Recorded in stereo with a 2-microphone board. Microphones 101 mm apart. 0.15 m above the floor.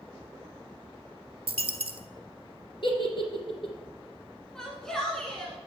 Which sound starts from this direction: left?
A giggle, at 2.8 s.